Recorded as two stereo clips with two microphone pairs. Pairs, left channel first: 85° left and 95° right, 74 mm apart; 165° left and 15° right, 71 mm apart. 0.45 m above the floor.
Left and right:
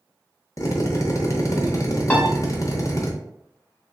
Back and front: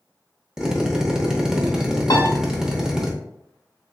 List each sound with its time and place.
0.6 s a drill: 65° left, 0.7 m
2.1 s a piano: 155° left, 0.8 m